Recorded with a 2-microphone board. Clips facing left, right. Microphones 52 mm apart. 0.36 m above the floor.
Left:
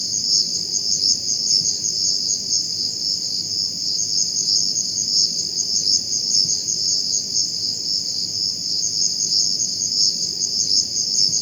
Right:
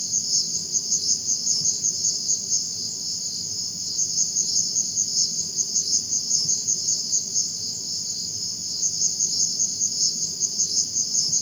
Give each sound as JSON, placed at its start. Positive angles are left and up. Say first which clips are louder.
{"t": 0.0, "sound": "an insect", "louder": "left 6 dB", "side_deg": 70, "distance_m": 0.8}